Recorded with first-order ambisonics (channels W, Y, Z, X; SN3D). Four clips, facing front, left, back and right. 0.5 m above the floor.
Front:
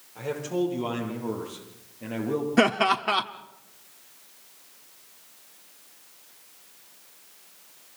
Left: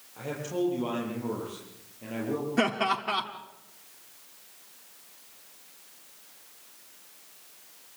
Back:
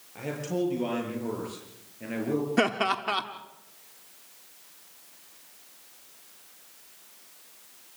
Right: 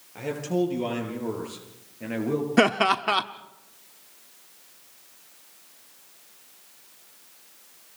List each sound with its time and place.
0.1 s a man speaking: 115° right, 10 m; by 2.5 s 110° right, 8 m
2.6 s laughter: 70° right, 0.8 m